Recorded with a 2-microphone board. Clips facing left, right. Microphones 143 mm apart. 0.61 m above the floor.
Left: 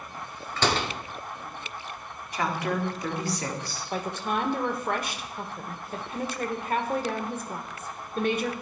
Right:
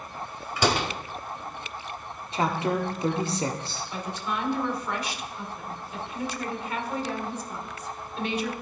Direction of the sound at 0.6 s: 10° right (ahead or behind).